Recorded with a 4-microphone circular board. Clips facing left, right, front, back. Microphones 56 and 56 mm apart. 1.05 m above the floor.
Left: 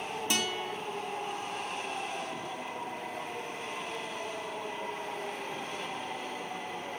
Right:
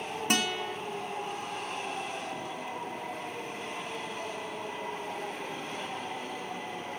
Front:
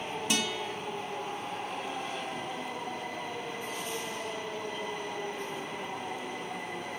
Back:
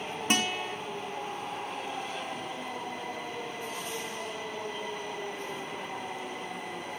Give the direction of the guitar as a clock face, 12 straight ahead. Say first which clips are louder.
Right 4 dB, back 4 dB; 4 o'clock.